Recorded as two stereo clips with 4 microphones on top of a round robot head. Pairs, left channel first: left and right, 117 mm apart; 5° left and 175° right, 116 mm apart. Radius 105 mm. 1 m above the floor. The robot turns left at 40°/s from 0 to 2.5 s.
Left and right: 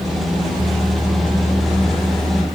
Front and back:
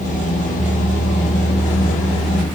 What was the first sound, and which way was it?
Only background noise.